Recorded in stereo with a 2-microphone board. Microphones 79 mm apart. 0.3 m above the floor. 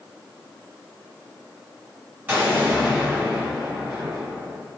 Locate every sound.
2.3 s an explosion: 20° right (ahead or behind), 1.7 m